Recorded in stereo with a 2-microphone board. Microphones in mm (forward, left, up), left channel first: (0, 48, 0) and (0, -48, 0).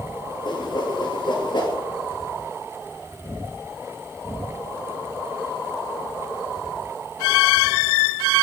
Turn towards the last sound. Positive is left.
turn(degrees=50)  # may be behind; listen again after turning